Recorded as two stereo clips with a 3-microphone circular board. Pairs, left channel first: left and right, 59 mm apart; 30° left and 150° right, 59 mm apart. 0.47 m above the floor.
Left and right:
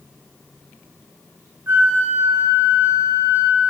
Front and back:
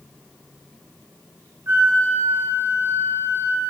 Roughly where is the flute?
Behind right.